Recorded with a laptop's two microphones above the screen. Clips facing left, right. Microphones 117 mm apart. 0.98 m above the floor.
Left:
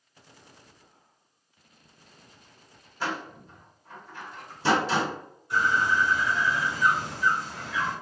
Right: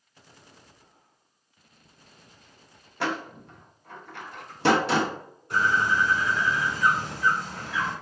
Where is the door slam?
75° right (ahead or behind), 0.6 m.